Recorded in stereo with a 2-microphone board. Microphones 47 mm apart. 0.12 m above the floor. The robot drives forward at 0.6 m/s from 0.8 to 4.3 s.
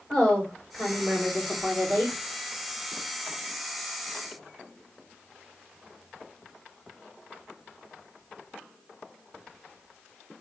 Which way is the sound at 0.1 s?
5° left (ahead or behind).